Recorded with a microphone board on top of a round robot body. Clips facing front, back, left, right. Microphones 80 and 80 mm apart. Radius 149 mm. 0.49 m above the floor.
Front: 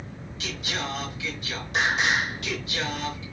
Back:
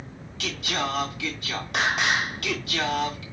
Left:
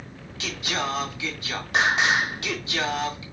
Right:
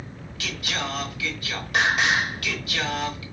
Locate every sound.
0.4 s singing: 155° left, 3 m